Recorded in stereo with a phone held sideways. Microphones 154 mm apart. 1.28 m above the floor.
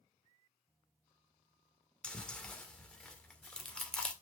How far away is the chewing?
About 1.8 m.